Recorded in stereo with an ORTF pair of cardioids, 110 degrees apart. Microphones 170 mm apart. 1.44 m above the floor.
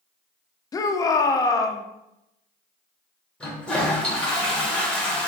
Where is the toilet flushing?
5° left, 1.0 m.